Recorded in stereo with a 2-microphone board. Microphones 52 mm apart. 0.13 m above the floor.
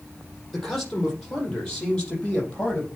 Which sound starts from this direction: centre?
A man speaking, at 0.5 s.